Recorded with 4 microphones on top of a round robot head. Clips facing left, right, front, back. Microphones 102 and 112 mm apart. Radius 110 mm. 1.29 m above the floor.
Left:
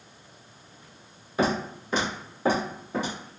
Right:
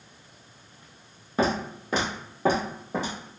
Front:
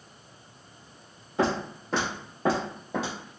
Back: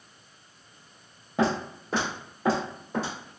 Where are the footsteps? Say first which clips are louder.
Even, back 1 dB; 130° right, 1.6 m; by 3.1 s 15° right, 1.8 m.